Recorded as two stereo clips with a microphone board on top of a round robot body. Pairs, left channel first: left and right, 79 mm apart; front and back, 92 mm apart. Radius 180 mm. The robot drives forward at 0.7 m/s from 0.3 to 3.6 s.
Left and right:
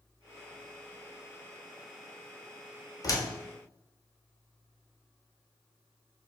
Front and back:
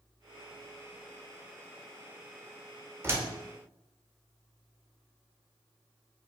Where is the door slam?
120° left, 1.0 m; by 3.3 s 130° left, 1.1 m.